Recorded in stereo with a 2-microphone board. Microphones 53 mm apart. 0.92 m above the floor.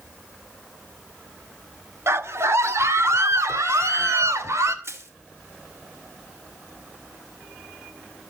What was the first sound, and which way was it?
A scream, 60° right (ahead or behind).